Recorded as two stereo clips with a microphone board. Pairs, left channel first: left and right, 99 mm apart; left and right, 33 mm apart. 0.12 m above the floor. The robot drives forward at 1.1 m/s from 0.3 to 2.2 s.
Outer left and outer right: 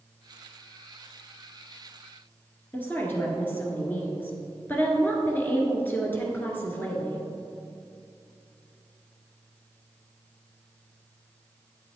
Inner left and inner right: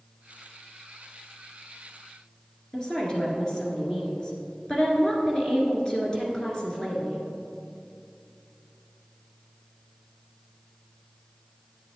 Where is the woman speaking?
20° left (ahead or behind), 1.6 m.